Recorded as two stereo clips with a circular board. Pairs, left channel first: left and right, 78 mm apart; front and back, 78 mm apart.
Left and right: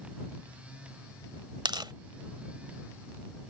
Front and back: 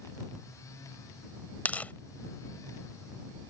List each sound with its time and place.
1.6 s tearing paper: 70° right